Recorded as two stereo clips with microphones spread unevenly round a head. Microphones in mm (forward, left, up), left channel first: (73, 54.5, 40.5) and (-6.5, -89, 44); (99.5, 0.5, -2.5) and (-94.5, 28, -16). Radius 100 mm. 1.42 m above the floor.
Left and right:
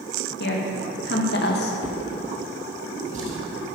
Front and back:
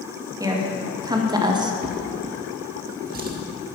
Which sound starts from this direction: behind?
A drawer, at 1.8 s.